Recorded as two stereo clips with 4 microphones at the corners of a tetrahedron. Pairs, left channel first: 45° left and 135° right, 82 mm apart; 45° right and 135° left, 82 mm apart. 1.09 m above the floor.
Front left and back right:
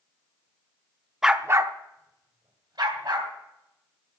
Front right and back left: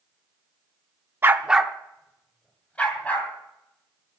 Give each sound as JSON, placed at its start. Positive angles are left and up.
{"t": 1.2, "sound": "a dog barking", "azimuth_deg": 145, "distance_m": 0.7}